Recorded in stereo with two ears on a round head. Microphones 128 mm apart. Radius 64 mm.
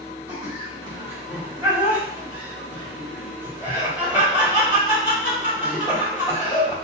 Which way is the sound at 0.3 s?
10° right (ahead or behind).